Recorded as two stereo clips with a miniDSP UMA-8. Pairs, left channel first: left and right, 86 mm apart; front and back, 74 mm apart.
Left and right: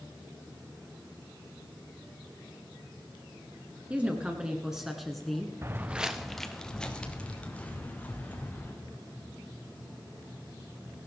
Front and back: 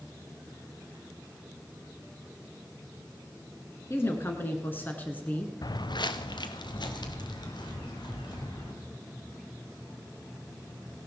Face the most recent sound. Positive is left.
turn(degrees=20)